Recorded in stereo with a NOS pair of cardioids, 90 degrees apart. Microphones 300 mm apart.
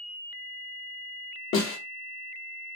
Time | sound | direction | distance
1.5 | a snare drum | 45° left | 1.1 m